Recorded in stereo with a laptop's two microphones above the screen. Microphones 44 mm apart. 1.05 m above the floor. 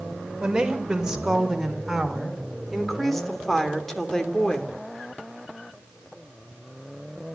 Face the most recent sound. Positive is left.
turn(degrees=20)  # may be behind; listen again after turning